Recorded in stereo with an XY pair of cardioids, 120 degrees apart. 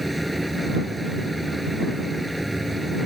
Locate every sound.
0.0 s a machine running: 5° right